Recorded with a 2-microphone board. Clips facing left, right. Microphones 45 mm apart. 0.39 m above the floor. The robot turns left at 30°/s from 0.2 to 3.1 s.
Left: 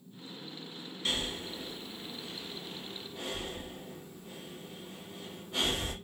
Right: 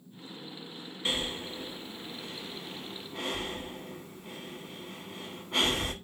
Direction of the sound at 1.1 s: 25° right (ahead or behind).